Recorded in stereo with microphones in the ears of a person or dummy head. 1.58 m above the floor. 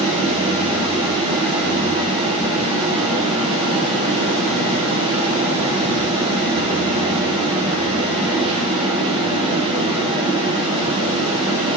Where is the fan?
30° right (ahead or behind), 1.2 m.